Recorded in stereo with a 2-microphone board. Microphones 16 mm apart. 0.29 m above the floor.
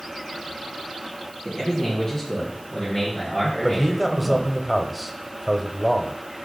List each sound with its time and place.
1.4 s a man speaking: 20° left (ahead or behind), 2.5 m; by 4.5 s 60° left (ahead or behind), 4 m
3.6 s a man speaking: 10° right (ahead or behind), 1.0 m